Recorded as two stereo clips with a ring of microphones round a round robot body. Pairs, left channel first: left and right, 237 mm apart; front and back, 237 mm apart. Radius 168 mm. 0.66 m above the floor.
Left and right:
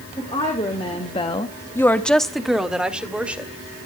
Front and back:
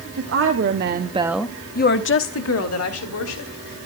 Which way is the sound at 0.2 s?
160° left.